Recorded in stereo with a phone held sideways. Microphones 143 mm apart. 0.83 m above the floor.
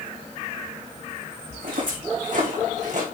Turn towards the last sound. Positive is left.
turn(degrees=-60)  # may be behind; listen again after turning